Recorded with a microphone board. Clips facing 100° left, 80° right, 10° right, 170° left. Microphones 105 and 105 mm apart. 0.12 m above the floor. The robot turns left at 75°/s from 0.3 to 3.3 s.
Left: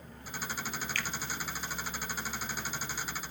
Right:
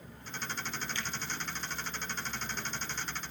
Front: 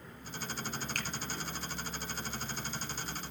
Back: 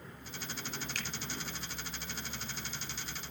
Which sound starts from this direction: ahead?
A finger snap, at 0.9 s.